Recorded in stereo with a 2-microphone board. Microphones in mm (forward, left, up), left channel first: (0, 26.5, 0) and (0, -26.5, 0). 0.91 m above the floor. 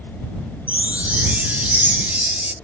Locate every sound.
0.7 s a chime: 30° right (ahead or behind)